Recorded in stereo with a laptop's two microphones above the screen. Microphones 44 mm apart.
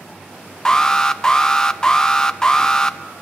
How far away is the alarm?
About 0.8 m.